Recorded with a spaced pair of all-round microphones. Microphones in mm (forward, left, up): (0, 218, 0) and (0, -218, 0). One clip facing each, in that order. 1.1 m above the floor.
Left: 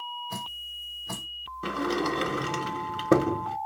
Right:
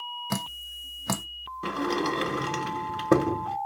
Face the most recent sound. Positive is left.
turn(degrees=0)  # may be behind; listen again after turning